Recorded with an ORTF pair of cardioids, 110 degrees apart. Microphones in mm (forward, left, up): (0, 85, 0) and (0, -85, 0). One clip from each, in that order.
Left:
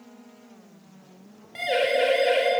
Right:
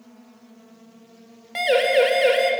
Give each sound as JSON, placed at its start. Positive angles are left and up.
{"t": 1.6, "sound": "a siren", "azimuth_deg": -55, "distance_m": 6.5}